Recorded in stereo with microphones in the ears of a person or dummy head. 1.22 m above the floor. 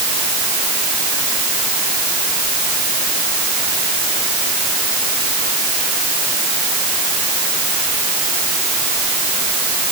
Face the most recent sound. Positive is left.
No sound to turn to.